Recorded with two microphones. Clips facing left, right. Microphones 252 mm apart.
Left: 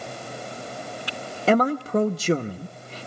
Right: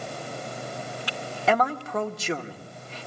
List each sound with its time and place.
1.5 s a man speaking: 35° left (ahead or behind), 0.8 m